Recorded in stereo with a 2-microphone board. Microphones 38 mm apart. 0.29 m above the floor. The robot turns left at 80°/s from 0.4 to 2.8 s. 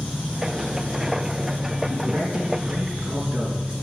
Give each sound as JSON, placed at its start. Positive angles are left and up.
{"t": 0.0, "sound": "an engine running", "azimuth_deg": 30, "distance_m": 8.0}
{"t": 1.9, "sound": "a man speaking", "azimuth_deg": -65, "distance_m": 5.0}